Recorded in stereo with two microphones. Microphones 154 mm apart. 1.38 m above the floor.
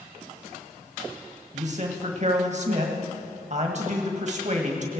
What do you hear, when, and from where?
1.5 s a man speaking: 50° right (ahead or behind), 1.7 m